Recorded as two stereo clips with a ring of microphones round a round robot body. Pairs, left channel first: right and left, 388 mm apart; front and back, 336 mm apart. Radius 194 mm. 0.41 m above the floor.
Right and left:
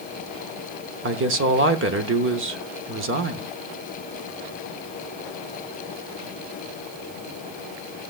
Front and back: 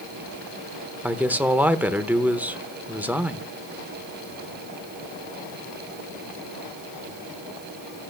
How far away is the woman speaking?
About 0.8 m.